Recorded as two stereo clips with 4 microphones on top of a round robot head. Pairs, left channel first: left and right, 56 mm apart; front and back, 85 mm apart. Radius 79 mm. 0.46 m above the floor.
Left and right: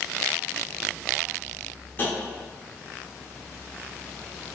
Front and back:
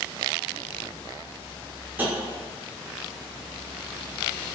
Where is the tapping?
120° left, 1.6 m.